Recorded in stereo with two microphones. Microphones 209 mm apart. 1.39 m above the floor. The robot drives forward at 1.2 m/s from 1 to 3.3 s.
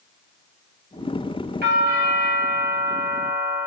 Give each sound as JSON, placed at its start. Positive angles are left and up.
{"t": 1.6, "sound": "a doorbell", "side_deg": -50, "distance_m": 1.5}